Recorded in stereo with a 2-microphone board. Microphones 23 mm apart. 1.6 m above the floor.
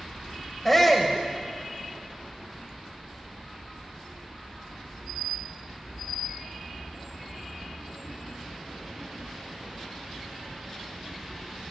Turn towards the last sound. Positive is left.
turn(degrees=5)  # may be behind; listen again after turning